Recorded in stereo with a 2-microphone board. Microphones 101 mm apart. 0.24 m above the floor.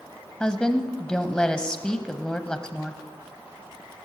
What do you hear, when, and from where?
0.4 s a woman speaking: 10° left (ahead or behind), 1.0 m